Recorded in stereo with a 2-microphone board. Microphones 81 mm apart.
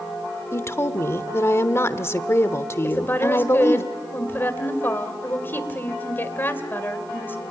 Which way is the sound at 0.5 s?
30° left (ahead or behind).